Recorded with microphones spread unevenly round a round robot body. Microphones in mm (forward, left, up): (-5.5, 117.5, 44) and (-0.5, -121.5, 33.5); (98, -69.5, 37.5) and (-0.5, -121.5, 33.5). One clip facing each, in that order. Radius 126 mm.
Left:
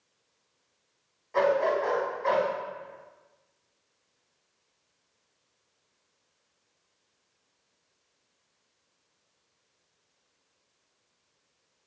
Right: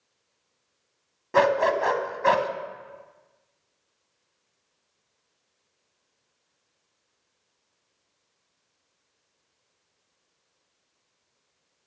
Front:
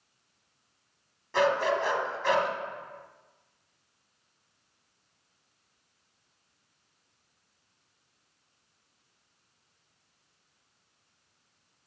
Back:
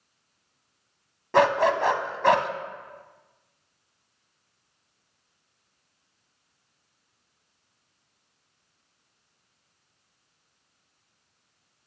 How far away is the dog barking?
About 0.9 m.